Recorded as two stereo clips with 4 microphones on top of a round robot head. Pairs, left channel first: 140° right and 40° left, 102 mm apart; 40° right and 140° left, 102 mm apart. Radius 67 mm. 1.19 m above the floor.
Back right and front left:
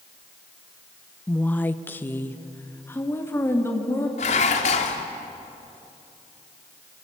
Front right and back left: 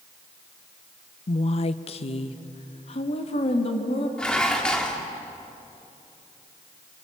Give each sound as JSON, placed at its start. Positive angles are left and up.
{"t": 1.3, "sound": "a woman speaking", "azimuth_deg": -65, "distance_m": 0.5}
{"t": 4.2, "sound": "dishes clattering", "azimuth_deg": -120, "distance_m": 1.7}